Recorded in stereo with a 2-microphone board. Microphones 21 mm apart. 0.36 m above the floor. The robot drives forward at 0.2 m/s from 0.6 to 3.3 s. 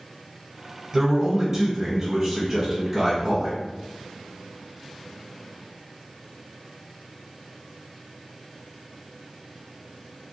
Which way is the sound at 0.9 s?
25° right (ahead or behind).